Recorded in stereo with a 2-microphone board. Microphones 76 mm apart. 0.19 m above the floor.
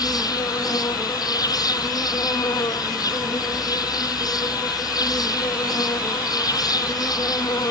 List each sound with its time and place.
0.0 s an insect: 60° left (ahead or behind)